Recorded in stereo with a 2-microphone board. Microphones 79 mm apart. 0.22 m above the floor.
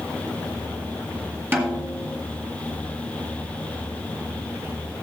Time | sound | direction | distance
1.5 | a snare drum | 25° right (ahead or behind) | 1.9 m